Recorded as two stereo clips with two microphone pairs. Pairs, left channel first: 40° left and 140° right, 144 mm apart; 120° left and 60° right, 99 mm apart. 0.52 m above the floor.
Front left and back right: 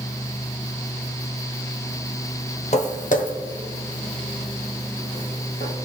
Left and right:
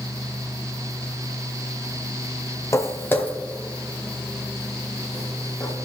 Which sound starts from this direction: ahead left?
Footsteps, at 2.7 s.